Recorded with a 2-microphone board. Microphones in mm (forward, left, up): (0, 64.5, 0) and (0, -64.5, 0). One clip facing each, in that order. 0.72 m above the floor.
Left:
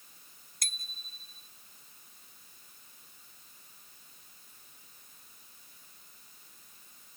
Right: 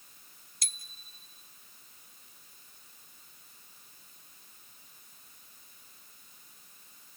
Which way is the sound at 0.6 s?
50° left (ahead or behind).